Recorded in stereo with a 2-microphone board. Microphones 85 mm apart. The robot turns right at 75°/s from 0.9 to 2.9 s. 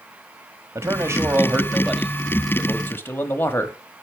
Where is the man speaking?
90° right, 1.1 m; by 3.8 s 60° left, 1.1 m.